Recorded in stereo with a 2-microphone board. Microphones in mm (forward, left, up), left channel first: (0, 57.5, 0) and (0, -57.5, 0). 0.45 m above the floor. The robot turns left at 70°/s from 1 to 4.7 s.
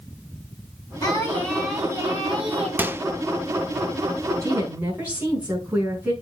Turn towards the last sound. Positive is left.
turn(degrees=-15)  # may be behind; listen again after turning